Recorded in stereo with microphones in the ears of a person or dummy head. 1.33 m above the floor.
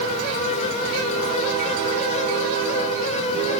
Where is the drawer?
I don't hear a drawer.